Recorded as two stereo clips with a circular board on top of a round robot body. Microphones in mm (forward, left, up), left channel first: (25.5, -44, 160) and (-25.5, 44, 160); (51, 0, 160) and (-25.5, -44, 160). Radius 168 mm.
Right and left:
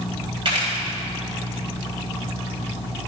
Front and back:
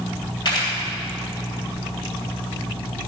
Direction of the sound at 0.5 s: 75° left.